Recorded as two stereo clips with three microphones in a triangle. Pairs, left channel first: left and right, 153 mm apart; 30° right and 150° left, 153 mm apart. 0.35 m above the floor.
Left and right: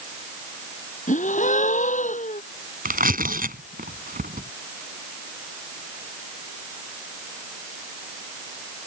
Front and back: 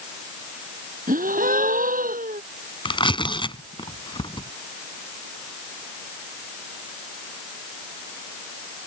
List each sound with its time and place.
1.1 s a gasp: 125° left
2.9 s tearing paper: 85° right